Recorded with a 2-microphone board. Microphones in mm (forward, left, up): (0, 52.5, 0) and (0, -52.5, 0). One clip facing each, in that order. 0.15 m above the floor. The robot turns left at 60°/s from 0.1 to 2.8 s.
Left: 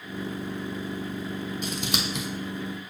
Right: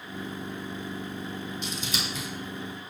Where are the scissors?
50° left (ahead or behind), 0.9 m; by 2.3 s 85° left, 0.9 m.